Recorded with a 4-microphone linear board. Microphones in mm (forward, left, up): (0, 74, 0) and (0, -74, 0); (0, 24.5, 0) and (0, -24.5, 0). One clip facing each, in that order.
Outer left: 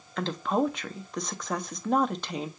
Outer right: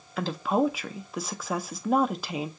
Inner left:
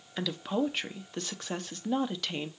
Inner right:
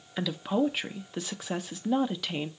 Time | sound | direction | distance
0.2 | a woman speaking | 5° right (ahead or behind) | 0.6 m